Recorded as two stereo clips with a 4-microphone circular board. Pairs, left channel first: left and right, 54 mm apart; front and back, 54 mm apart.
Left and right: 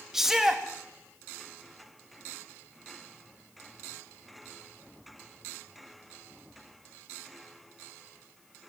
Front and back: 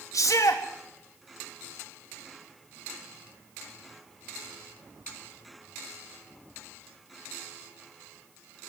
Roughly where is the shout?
Ahead.